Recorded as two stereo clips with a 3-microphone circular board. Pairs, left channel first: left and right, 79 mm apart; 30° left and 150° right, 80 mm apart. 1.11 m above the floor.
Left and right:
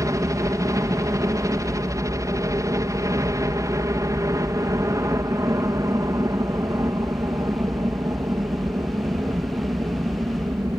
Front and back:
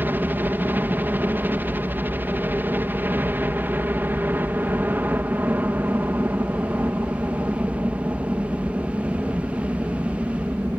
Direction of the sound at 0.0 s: 100° right.